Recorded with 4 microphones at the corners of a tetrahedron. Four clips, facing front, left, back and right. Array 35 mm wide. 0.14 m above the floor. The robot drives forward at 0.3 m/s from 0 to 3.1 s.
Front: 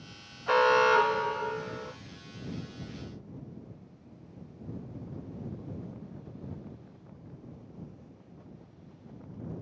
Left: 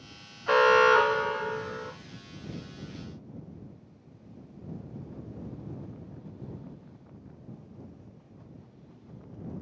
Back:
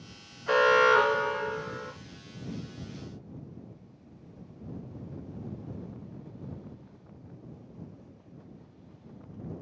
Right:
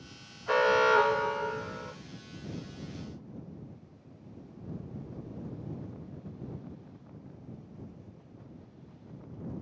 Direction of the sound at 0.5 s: 85° left.